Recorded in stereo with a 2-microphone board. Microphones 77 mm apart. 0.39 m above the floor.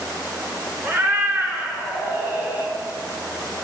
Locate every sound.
0.8 s a cat meowing: 30° right (ahead or behind), 1.7 m